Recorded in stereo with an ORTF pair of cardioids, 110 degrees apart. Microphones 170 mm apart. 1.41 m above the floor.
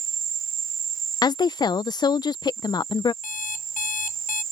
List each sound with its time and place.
0.0 s an insect: 55° right
1.2 s a woman speaking: 25° left
3.2 s an alarm clock: 50° left